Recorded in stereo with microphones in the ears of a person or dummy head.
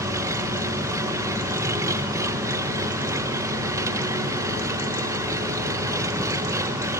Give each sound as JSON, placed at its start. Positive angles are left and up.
{"t": 0.0, "sound": "an engine running", "side_deg": -15, "distance_m": 0.8}